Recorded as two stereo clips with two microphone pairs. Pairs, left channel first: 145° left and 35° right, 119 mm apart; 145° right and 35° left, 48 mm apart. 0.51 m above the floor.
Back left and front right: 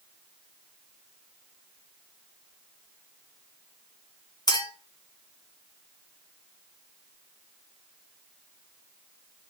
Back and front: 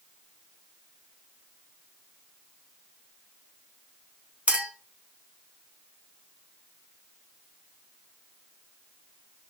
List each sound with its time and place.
4.5 s a clink: 95° left, 0.8 m